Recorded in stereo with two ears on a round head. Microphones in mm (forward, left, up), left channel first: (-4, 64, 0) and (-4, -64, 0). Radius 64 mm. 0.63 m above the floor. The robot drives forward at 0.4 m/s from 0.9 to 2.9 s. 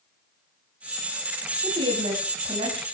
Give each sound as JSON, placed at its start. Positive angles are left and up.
{"t": 1.6, "sound": "a woman speaking", "side_deg": -35, "distance_m": 7.0}